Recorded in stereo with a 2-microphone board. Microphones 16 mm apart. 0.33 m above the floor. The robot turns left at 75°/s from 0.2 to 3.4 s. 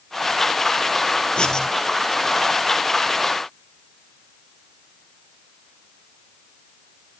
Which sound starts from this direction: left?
Writing, at 1.4 s.